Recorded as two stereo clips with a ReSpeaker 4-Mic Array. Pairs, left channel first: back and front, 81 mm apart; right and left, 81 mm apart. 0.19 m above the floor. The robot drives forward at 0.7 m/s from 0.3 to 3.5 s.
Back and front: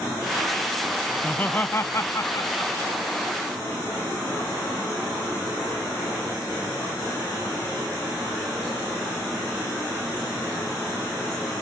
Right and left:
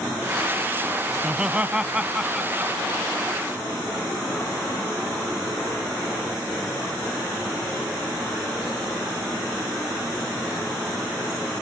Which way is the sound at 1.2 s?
145° left.